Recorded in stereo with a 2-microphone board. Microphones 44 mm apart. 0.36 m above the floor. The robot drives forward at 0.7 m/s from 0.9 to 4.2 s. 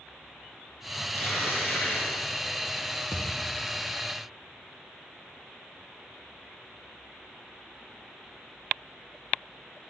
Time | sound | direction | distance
1.1 | tearing paper | 45° left (ahead or behind) | 9.5 m
3.1 | a thud | 70° left (ahead or behind) | 5.5 m